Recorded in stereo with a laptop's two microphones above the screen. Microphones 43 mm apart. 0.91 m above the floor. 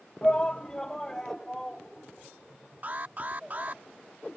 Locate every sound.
0.2 s a shout: 25° left (ahead or behind); by 3.8 s 5° left (ahead or behind)
2.8 s an alarm: 40° right (ahead or behind)